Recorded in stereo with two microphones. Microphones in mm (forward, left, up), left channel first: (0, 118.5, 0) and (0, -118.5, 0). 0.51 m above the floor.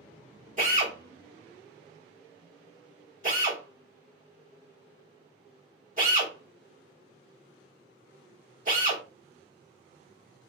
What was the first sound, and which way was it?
A drill, 35° right (ahead or behind).